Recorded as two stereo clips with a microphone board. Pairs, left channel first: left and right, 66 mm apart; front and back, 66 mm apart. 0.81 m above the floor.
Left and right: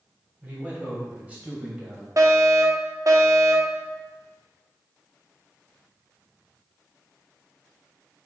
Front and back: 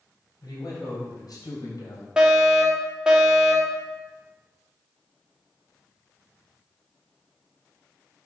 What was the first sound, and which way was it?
A man speaking, 25° right.